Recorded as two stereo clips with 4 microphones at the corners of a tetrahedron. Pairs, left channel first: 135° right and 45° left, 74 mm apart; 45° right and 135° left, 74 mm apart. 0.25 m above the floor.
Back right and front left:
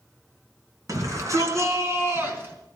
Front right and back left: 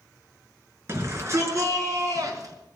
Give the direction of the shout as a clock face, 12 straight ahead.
9 o'clock.